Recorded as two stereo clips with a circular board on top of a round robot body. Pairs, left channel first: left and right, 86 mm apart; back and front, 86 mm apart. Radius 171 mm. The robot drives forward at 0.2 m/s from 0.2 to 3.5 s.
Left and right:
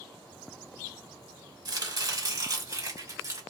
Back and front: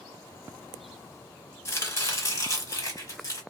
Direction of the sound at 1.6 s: 125° right.